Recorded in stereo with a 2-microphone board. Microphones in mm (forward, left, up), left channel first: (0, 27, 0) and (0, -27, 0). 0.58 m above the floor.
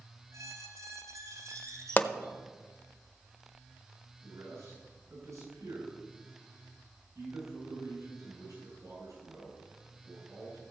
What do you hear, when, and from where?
0.3 s a squeak: 75° right (ahead or behind), 2.5 m
2.0 s a pop: 35° left (ahead or behind), 0.7 m
4.2 s a man speaking: 70° right (ahead or behind), 7 m